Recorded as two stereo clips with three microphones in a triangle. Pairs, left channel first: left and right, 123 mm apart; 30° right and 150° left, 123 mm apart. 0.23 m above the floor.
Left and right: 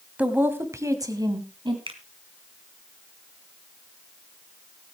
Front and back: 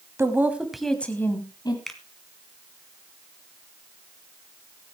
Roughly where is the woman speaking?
Behind.